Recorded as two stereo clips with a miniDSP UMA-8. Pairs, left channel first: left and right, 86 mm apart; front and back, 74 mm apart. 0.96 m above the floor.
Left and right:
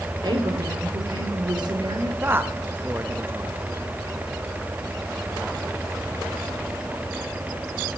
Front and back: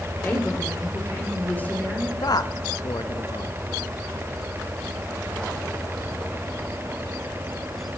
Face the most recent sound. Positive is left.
turn(degrees=-25)